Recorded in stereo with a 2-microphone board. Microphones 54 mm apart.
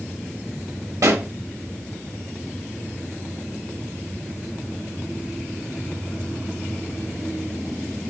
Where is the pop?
80° right, 0.9 m.